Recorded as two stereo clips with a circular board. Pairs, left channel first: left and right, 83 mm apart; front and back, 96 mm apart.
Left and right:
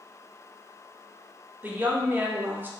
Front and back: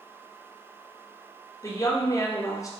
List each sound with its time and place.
1.6 s a woman speaking: 35° right, 0.6 m